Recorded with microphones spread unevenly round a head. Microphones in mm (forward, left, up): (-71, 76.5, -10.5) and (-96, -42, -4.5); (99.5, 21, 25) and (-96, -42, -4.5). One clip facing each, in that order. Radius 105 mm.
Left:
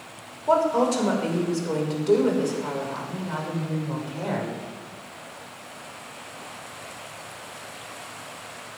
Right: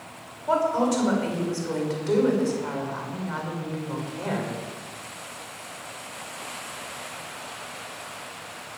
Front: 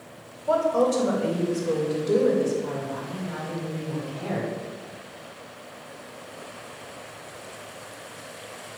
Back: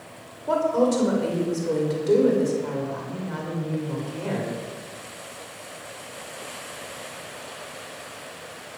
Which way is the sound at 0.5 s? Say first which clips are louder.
Left 2 dB, back 1 dB; 140° left.